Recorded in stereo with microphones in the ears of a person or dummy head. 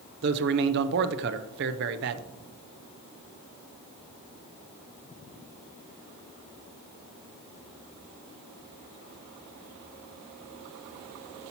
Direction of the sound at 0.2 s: 55° right (ahead or behind).